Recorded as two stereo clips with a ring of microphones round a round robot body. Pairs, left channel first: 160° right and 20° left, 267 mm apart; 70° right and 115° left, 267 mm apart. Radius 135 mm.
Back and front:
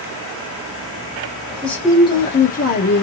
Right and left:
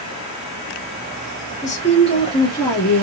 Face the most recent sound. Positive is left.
turn(degrees=-145)